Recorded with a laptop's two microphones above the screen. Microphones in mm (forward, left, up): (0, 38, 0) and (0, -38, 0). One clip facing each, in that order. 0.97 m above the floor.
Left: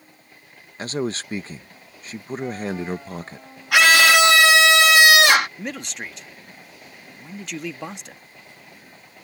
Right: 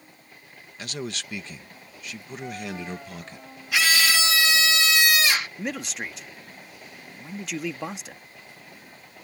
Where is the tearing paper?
No tearing paper in this recording.